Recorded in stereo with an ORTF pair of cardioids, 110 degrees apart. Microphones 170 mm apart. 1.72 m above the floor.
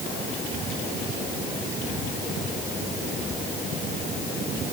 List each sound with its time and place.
Only background noise.